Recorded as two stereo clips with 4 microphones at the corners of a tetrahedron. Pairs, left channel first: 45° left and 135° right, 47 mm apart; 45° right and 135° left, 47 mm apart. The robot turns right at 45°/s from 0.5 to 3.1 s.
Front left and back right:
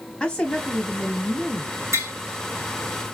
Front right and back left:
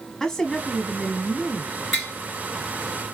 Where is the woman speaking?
15° left, 1.0 m; by 1.8 s 70° left, 1.0 m.